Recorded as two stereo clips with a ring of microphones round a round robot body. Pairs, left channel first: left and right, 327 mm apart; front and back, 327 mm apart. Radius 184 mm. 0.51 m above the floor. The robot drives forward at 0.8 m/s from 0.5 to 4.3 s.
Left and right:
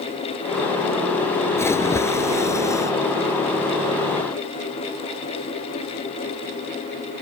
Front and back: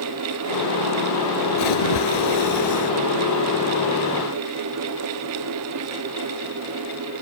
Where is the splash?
10° left.